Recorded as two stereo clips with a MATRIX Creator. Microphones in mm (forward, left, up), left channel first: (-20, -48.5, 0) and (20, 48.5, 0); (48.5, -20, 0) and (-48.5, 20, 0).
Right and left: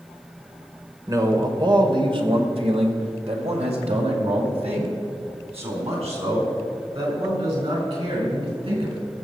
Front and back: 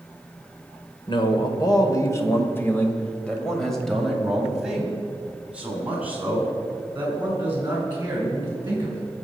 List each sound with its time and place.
1.1 s a man speaking: 10° left, 1.8 m; by 9.0 s 90° left, 6 m